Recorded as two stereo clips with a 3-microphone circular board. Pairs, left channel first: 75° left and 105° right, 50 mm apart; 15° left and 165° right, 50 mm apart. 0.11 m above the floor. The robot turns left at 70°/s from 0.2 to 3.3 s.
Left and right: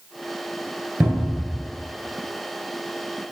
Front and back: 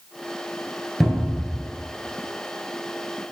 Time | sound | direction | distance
1.0 | a cupboard door | 75° right | 0.9 m